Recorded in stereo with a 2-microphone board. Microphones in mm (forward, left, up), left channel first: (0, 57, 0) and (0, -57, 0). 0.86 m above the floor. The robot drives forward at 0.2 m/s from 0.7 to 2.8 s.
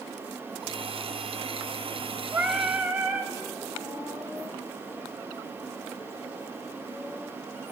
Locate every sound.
2.3 s singing: 20° right (ahead or behind), 1.5 m